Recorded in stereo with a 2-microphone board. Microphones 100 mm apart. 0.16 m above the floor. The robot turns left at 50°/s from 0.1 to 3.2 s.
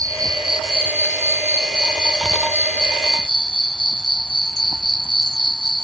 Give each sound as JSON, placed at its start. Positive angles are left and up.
{"t": 0.0, "sound": "an insect", "azimuth_deg": -35}